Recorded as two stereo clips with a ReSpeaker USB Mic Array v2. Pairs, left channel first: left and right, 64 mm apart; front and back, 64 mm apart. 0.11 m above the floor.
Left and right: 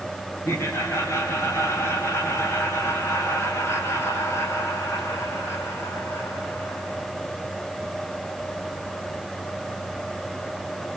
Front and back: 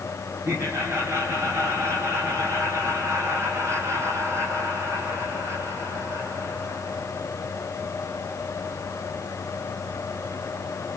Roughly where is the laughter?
Behind left.